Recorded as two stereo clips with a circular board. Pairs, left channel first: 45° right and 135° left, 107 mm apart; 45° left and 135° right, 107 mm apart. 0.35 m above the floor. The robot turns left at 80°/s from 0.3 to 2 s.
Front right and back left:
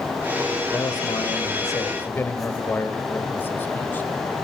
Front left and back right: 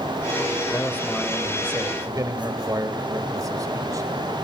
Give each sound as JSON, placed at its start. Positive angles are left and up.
{"t": 0.7, "sound": "a man speaking", "azimuth_deg": 0, "distance_m": 1.7}